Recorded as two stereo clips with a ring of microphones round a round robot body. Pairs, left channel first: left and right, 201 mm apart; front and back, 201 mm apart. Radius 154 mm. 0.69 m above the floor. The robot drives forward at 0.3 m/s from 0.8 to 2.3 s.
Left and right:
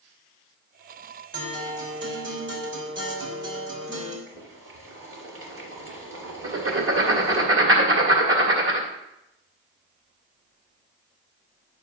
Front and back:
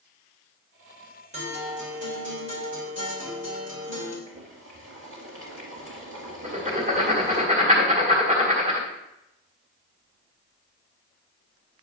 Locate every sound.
1.3 s a guitar: 120° right, 3 m; by 4.2 s 125° right, 3.5 m
4.3 s boiling: 135° right, 2.5 m
6.4 s writing: 115° right, 1.8 m